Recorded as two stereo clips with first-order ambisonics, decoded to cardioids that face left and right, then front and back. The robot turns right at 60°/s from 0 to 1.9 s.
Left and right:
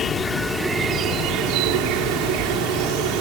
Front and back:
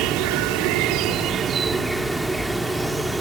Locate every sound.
0.0 s an insect: 150° left; by 3.2 s 95° right